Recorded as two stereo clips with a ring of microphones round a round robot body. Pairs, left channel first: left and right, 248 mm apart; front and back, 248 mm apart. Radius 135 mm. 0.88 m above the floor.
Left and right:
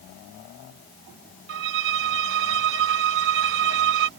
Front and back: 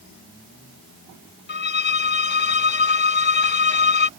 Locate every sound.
1.5 s a violin: 45° right